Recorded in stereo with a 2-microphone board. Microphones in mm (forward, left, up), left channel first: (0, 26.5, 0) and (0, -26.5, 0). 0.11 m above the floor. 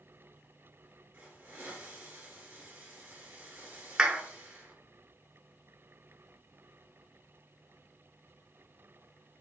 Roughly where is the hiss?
Right.